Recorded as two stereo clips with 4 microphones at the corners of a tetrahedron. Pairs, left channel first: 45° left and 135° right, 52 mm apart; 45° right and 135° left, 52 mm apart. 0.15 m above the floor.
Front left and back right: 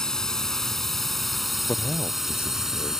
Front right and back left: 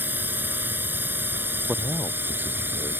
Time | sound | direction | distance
0.0 | a drone | 120° left | ?
1.7 | a man speaking | 85° left | ?